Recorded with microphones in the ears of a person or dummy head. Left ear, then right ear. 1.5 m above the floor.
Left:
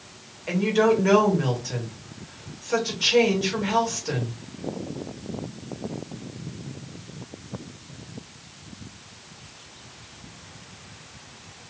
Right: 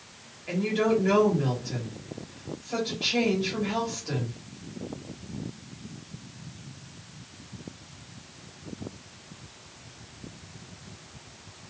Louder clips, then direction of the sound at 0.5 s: Left 5 dB; 45° left (ahead or behind).